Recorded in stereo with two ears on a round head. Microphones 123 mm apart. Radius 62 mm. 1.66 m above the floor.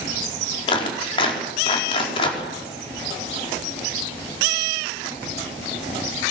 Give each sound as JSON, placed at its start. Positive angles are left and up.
{"t": 0.7, "sound": "a clap", "side_deg": 40, "distance_m": 4.5}